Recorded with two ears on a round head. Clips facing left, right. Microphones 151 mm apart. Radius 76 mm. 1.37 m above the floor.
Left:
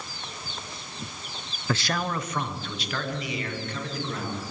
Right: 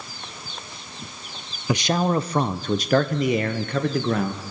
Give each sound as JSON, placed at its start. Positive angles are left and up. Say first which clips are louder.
{"t": 1.7, "sound": "a man speaking", "louder": "right 7 dB", "side_deg": -15, "distance_m": 0.6}